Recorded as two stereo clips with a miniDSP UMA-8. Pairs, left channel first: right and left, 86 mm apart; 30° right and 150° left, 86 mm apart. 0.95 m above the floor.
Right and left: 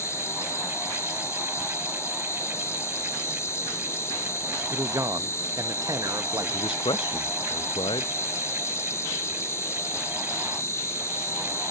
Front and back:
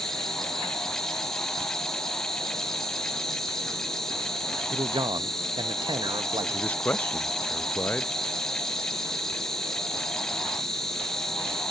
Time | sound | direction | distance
0.0 | an insect | 110° right | 1.3 m
4.7 | a man speaking | 135° left | 0.8 m
6.5 | a man speaking | 100° right | 0.6 m